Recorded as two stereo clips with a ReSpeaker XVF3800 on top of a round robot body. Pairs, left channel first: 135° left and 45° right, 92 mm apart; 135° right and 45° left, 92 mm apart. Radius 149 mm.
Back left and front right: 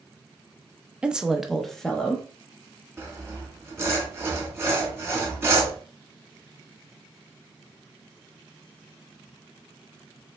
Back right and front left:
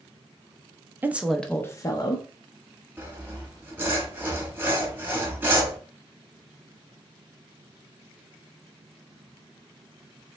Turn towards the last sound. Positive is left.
turn(degrees=-10)